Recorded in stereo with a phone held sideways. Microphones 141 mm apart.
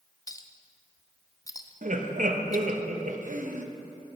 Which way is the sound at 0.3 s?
25° left (ahead or behind).